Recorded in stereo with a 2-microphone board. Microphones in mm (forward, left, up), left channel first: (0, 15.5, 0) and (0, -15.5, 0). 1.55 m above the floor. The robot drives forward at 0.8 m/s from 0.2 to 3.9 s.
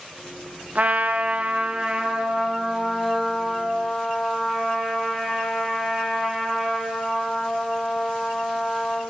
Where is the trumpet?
55° right (ahead or behind), 0.8 m; by 9.0 s 15° right (ahead or behind), 2.5 m.